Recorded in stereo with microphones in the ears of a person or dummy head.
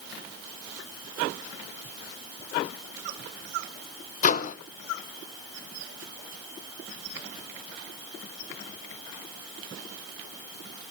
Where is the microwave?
55° left (ahead or behind), 0.7 m.